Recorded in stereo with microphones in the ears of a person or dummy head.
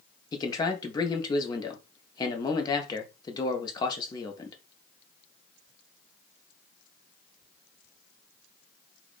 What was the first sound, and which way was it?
A man speaking, 25° left (ahead or behind).